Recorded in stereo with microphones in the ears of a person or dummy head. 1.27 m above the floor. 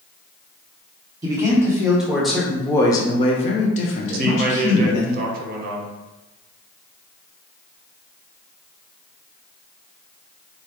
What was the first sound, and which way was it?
A man speaking, 10° right (ahead or behind).